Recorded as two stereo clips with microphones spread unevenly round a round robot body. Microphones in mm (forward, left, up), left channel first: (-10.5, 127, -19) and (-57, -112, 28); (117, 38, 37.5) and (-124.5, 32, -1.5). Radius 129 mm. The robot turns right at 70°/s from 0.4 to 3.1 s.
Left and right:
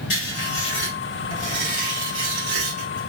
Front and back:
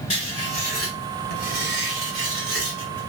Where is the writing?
70° left, 1.9 m; by 3.1 s 100° right, 1.9 m.